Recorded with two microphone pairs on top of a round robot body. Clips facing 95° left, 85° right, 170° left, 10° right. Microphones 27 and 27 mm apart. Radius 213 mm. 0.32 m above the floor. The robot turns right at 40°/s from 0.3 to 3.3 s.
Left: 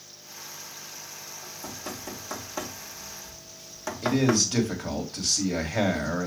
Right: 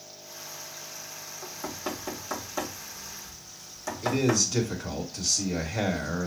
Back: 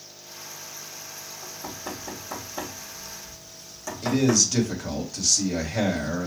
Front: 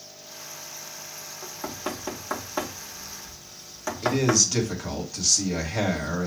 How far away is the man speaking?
About 2.0 m.